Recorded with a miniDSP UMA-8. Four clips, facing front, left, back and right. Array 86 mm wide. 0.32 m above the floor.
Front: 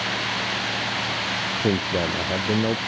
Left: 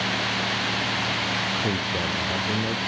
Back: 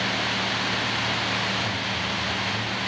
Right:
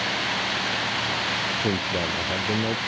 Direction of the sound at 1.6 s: 10° right.